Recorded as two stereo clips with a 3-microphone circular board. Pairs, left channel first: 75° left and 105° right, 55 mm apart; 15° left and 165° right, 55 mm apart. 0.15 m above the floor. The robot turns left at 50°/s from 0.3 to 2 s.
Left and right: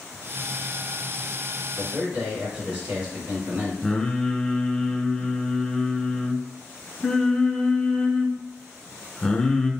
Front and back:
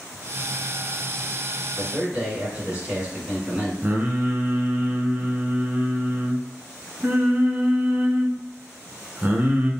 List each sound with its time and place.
1.8 s a man speaking: 115° right, 1.3 m; by 3.7 s 125° right, 1.3 m
3.8 s singing: 150° left, 0.5 m